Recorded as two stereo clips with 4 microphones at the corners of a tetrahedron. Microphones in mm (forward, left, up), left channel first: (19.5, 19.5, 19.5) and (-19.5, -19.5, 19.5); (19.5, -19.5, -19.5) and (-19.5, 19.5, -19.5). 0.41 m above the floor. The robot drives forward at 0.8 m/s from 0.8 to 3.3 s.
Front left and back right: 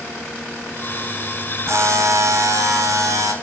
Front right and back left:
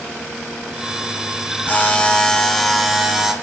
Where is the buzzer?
100° right, 1.3 m; by 3.3 s 140° right, 2 m.